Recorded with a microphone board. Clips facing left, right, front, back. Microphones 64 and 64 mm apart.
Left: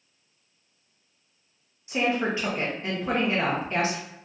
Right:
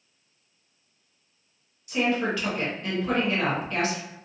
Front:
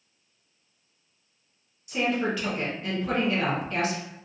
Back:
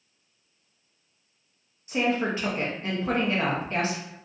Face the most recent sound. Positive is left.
turn(degrees=140)